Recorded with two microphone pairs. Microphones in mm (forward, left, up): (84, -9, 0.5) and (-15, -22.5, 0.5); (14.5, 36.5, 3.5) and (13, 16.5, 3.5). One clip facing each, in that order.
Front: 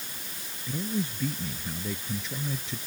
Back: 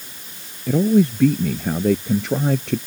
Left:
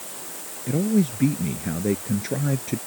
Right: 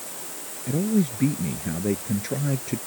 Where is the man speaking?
170° left.